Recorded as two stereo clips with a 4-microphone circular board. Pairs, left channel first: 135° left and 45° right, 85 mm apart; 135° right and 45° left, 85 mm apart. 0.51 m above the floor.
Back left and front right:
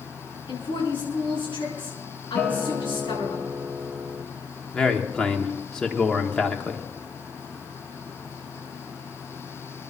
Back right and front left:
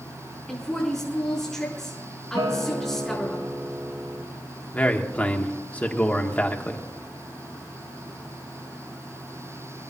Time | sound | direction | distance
0.5 | a woman speaking | 140° left | 5.5 m
2.4 | a guitar | 60° left | 2.5 m
4.7 | a man speaking | 155° right | 1.2 m